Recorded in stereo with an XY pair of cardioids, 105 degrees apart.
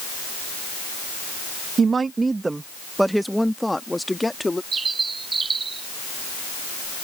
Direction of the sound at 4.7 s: 30° right.